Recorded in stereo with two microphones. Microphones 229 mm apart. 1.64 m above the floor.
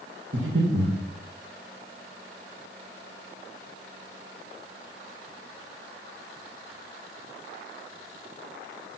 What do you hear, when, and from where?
0.3 s breathing: 55° right (ahead or behind), 2 m